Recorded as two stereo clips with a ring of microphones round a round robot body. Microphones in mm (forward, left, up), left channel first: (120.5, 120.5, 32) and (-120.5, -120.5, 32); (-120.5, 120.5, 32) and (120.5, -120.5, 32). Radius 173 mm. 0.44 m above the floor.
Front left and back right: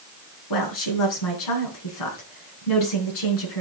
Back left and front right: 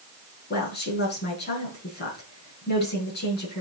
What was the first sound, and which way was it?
A woman speaking, 75° left.